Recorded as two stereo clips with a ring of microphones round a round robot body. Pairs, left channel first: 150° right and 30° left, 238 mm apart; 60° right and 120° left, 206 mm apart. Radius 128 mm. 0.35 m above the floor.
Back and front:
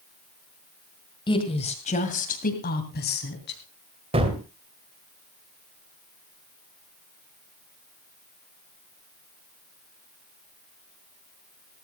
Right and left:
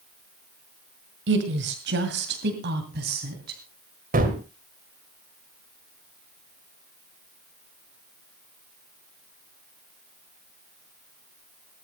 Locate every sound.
1.3 s a woman speaking: 140° left, 1.8 m; by 3.6 s 170° left, 3 m
4.1 s a gunshot: 90° left, 2.5 m